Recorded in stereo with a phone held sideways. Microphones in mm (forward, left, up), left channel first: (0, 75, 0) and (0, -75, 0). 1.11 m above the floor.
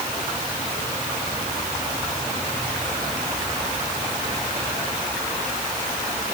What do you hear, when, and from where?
Only background noise.